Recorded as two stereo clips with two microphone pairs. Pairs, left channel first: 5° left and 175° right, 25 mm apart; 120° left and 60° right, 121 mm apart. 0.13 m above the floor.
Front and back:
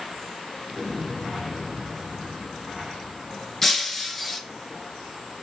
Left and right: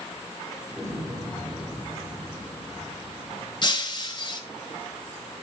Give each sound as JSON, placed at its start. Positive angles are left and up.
{"t": 0.7, "sound": "an explosion", "azimuth_deg": -5, "distance_m": 5.0}
{"t": 3.6, "sound": "breaking glass", "azimuth_deg": 85, "distance_m": 1.0}